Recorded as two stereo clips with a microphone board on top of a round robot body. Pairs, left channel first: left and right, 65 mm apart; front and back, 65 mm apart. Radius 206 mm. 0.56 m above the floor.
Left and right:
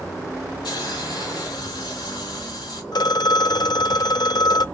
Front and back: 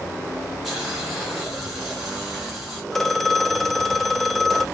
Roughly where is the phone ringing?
Left.